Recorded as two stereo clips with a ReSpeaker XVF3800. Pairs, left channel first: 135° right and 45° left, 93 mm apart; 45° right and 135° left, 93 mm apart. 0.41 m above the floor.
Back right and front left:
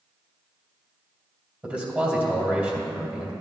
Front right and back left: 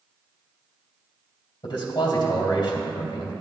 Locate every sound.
1.6 s a man speaking: 25° right, 2 m